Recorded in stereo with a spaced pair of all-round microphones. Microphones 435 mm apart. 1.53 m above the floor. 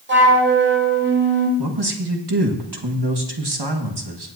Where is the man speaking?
60° right (ahead or behind), 1.5 m.